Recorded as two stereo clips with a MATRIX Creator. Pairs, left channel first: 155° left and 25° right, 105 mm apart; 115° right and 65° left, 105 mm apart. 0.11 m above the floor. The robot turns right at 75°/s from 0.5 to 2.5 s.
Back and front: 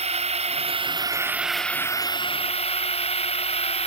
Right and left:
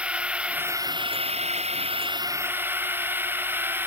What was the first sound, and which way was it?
A drone, 10° right.